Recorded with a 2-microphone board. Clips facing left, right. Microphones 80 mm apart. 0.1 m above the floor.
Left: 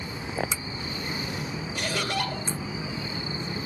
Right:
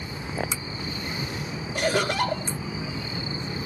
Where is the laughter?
55° right (ahead or behind), 3 m.